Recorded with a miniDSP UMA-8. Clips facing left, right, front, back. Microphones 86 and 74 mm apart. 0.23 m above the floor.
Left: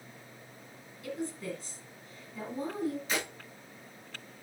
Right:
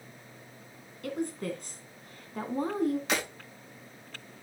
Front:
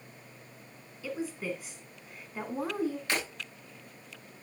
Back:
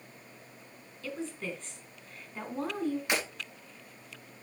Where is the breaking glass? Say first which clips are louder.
Right 3 dB, back 1 dB; 105° right, 4.5 m.